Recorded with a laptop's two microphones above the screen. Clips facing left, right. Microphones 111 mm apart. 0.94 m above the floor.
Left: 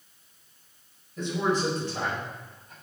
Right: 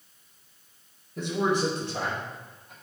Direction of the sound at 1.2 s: 70° right (ahead or behind).